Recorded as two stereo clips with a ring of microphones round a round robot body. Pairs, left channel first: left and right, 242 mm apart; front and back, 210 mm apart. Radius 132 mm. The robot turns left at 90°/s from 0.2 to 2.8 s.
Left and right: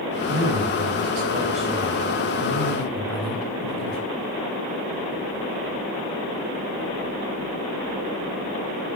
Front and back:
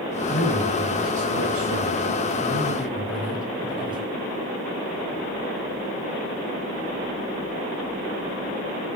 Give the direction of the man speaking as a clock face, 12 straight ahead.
1 o'clock.